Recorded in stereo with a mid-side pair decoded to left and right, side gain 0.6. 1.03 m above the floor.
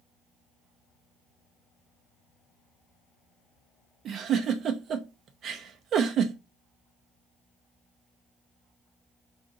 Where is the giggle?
50° right, 0.7 m.